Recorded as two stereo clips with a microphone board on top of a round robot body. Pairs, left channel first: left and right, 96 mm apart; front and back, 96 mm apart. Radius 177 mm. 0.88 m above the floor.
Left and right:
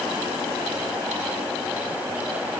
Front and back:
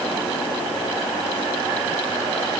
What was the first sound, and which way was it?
Only background noise.